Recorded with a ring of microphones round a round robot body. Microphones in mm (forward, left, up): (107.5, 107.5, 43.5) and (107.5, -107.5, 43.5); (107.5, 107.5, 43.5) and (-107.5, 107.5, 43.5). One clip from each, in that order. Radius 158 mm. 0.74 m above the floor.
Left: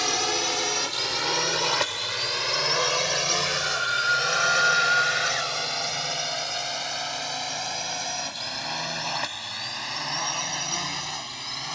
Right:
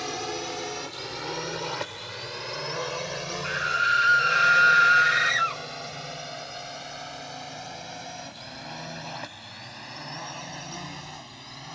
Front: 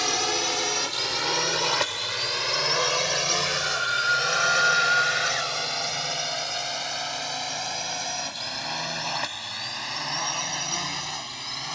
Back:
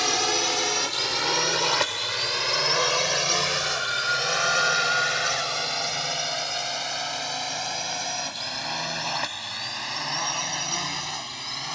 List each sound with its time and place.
0.0 s a drone: 110° left; by 11.8 s 100° left
3.4 s a scream: 75° right